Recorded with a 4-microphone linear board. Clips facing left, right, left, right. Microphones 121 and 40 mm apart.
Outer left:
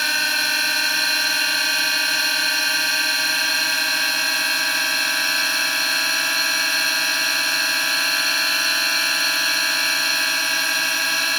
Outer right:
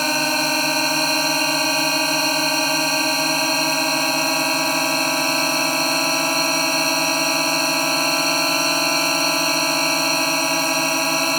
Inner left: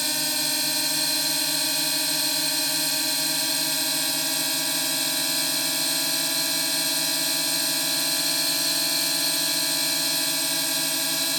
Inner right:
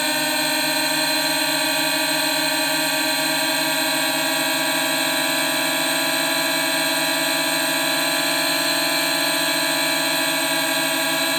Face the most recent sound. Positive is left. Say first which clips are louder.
# outer right 6 dB, inner right 7 dB
turn(degrees=-40)  # may be behind; listen again after turning